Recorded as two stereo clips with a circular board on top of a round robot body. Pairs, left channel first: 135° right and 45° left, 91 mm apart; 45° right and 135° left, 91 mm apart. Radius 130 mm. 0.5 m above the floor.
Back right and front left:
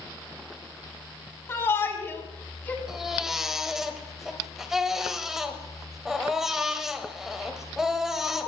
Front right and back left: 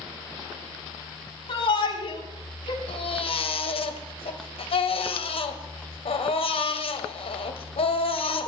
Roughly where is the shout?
Right.